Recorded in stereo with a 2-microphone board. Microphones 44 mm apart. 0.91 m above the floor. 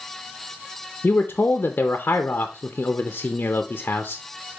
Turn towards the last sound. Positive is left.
turn(degrees=40)  # may be behind; listen again after turning